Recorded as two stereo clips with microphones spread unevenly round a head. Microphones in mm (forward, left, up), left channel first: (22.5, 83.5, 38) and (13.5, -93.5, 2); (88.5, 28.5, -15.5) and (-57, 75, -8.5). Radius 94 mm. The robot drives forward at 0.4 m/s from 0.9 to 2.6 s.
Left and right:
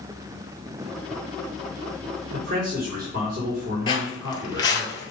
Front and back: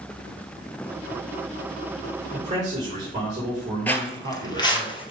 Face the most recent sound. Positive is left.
turn(degrees=30)